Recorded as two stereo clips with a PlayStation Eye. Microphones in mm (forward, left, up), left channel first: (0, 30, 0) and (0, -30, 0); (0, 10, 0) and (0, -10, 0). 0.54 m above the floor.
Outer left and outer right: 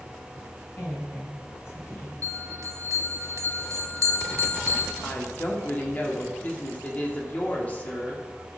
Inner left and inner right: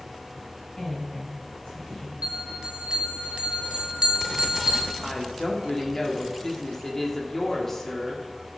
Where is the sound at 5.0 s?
25° left (ahead or behind), 1.3 m.